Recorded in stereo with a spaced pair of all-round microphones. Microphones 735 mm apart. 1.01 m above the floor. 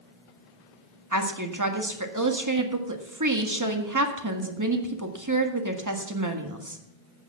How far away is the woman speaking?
About 1.7 m.